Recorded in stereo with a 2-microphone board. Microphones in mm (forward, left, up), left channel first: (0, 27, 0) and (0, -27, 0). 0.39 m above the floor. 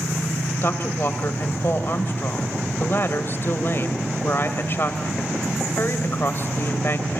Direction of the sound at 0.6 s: 45° left (ahead or behind).